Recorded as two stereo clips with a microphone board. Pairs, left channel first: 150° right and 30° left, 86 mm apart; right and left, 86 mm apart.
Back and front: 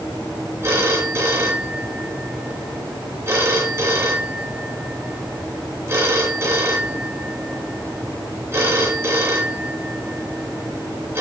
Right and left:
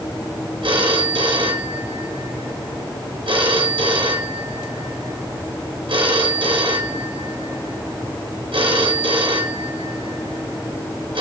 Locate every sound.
0.6 s a phone ringing: 90° left, 4 m